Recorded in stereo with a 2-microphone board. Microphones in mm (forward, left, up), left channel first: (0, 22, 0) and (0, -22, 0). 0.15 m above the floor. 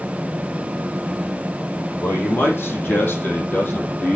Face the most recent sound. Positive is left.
turn(degrees=40)  # may be behind; listen again after turning